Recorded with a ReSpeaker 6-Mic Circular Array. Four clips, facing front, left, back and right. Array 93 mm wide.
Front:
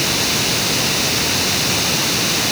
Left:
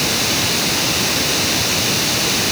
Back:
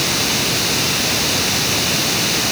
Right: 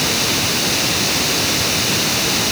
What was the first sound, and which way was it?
Only background noise.